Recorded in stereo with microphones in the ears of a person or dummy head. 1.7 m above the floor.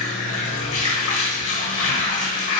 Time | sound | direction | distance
0.0 | running water | 35° left (ahead or behind) | 1.4 m